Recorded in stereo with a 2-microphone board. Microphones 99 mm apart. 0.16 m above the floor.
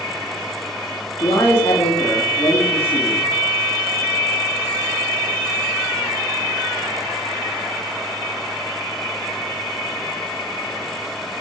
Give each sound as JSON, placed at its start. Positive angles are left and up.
{"t": 1.2, "sound": "a man speaking", "side_deg": 30, "distance_m": 2.5}